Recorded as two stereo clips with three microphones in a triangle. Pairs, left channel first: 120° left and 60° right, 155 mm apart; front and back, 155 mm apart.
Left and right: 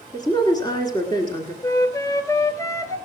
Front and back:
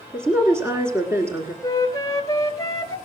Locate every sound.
0.1 s a woman speaking: 130° left, 1.5 m
1.6 s a flute: 60° left, 0.7 m